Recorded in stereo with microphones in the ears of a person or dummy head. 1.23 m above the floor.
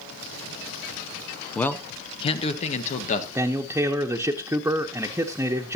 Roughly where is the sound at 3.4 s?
Centre.